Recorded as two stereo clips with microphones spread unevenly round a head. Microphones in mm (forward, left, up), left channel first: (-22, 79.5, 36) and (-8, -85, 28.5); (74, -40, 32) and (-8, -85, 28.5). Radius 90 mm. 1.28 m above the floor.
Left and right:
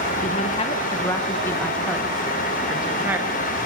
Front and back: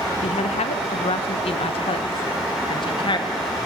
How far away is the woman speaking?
About 1.1 m.